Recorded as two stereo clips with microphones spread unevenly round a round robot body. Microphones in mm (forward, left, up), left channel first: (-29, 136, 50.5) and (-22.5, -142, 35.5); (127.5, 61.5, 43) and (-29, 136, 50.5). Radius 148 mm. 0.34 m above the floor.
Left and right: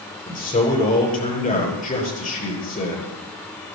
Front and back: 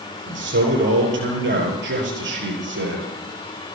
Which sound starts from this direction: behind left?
A man speaking, at 0.3 s.